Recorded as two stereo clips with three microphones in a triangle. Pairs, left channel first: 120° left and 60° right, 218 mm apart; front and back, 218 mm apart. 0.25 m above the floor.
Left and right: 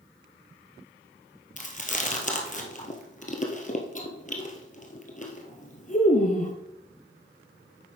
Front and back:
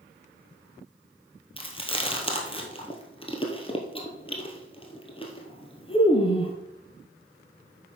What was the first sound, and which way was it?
Chewing, 65° left.